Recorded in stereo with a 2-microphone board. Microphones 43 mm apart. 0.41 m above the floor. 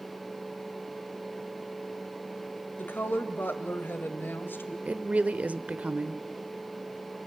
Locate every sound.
2.8 s a woman speaking: 55° left (ahead or behind), 2.0 m
4.8 s a woman speaking: 35° right (ahead or behind), 1.0 m